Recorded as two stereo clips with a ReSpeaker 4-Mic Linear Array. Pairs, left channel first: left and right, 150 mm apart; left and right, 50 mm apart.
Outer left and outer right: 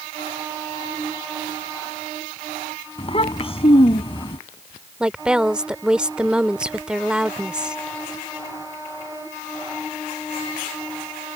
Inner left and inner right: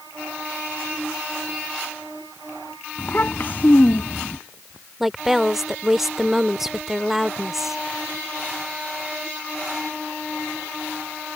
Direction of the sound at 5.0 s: 5° right (ahead or behind).